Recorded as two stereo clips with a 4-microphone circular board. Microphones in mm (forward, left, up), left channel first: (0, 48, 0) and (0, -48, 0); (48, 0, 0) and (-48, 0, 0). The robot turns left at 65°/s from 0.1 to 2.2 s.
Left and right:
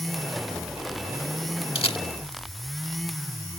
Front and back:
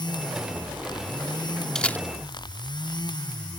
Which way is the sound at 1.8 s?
85° left.